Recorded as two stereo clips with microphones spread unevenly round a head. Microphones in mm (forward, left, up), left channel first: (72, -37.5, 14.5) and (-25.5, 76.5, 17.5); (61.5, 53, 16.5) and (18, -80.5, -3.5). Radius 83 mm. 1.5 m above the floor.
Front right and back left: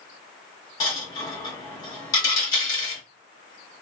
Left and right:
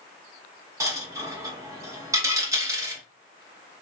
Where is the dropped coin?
55° right, 0.8 m.